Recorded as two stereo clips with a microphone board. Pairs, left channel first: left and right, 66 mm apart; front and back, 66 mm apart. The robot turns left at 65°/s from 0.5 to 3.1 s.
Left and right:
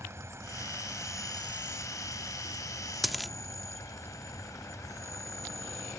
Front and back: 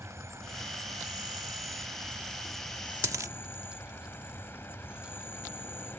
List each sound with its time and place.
0.0 s an insect: 135° right; by 6.0 s 55° left
3.0 s a dropped coin: 175° right; by 3.3 s straight behind